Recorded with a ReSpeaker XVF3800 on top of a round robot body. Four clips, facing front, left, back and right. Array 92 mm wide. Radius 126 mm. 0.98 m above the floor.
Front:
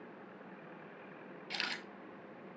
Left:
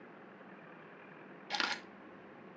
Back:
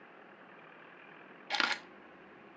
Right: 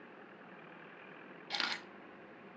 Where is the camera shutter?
170° left, 1.3 m.